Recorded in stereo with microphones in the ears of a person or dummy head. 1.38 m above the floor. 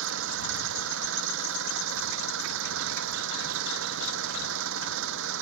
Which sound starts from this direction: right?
An engine running, at 0.0 s.